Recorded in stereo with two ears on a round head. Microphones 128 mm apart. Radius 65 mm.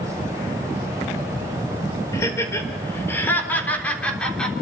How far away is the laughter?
About 5 m.